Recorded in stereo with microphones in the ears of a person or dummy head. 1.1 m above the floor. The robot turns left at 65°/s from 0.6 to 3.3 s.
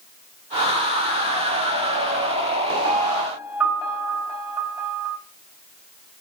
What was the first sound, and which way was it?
A piano, 40° right (ahead or behind).